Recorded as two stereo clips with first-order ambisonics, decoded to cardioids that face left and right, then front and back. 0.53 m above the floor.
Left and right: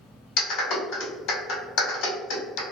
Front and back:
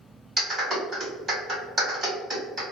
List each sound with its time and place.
0.4 s a clap: 110° left, 1.8 m